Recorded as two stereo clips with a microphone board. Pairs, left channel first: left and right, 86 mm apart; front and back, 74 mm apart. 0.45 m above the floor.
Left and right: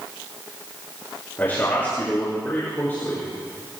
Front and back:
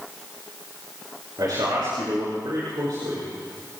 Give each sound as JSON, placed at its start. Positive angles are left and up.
{"t": 1.4, "sound": "a man speaking", "azimuth_deg": 155, "distance_m": 5.5}